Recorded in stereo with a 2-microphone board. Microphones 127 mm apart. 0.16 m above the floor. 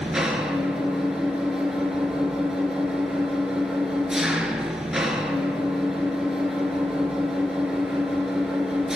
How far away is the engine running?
About 2 m.